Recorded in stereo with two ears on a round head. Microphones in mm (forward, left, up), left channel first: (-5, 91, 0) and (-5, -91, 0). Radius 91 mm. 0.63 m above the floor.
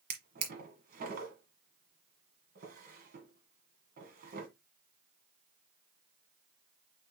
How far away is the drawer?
About 1.5 m.